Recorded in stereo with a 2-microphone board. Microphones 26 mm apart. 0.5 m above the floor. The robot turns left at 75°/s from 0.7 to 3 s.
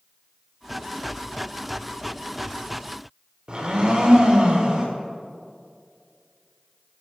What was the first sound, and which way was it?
A blender, 30° right (ahead or behind).